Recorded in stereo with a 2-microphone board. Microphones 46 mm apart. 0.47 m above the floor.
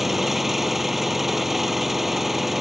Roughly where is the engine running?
Centre.